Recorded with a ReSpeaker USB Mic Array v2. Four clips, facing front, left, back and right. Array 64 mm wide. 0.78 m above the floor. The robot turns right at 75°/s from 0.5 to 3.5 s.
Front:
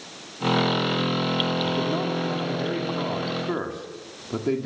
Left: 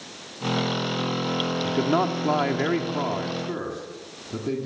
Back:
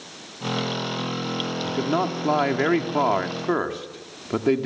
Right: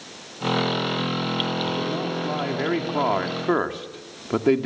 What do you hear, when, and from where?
1.6 s a man speaking: 105° left, 2.0 m; by 4.7 s 115° right, 2.0 m